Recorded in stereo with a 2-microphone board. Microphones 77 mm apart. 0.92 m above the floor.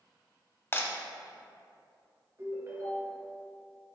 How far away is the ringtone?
About 1.9 m.